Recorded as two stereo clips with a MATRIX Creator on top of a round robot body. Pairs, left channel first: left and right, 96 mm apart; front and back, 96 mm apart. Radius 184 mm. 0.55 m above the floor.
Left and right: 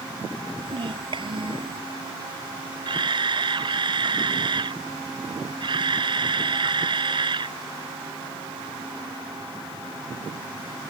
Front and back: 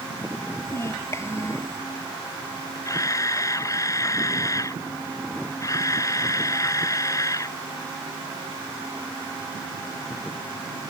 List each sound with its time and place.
0.7 s a child speaking: 60° right
2.9 s a camera shutter: 55° right